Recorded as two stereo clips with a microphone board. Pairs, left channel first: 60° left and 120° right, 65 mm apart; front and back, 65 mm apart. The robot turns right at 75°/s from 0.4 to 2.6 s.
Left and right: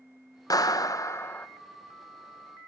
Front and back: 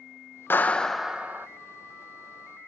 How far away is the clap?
About 0.6 m.